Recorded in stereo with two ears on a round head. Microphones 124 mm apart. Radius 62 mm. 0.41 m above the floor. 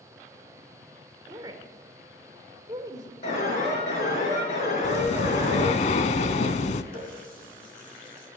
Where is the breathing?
50° left (ahead or behind), 0.7 m.